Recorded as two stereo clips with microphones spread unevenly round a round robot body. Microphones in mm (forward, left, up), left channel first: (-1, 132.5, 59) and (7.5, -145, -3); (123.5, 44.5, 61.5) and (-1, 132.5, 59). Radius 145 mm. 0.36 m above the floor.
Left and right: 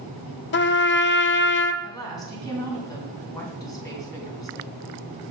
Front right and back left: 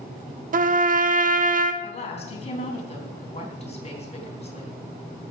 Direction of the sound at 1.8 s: 10° left.